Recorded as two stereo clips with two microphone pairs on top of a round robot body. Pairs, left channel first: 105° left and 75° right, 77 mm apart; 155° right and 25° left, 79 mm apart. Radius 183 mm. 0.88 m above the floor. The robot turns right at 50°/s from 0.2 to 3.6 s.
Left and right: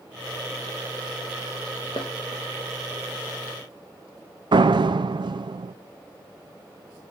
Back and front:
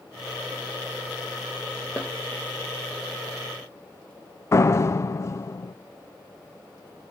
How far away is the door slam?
About 0.6 m.